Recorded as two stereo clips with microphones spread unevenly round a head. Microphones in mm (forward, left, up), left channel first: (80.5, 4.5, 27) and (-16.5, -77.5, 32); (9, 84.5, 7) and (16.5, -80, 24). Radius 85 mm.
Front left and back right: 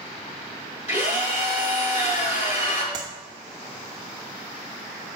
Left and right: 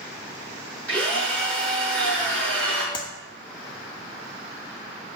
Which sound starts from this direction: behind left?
A clap, at 2.9 s.